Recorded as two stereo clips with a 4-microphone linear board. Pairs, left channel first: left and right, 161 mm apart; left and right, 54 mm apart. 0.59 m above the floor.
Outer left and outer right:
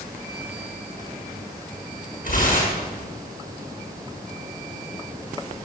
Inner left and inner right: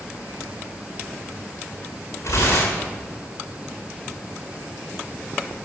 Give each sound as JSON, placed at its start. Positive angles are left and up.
{"t": 2.2, "sound": "tearing paper", "side_deg": 65, "distance_m": 7.0}